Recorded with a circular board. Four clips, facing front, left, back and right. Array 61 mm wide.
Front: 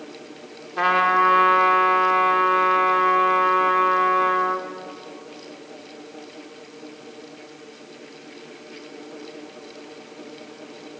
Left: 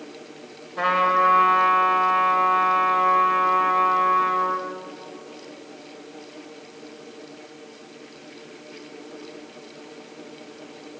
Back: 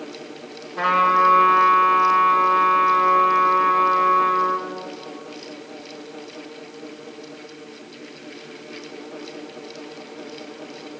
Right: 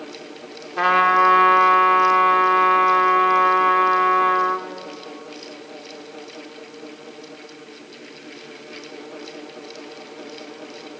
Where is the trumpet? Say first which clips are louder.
Right 4 dB, back 1 dB; 60° right, 2 m.